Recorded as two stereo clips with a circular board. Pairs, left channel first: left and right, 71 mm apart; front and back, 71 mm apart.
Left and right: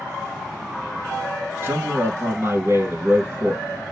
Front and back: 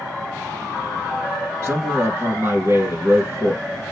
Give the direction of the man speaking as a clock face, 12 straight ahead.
4 o'clock.